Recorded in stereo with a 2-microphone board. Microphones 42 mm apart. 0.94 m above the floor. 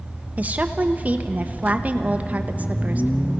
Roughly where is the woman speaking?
Right.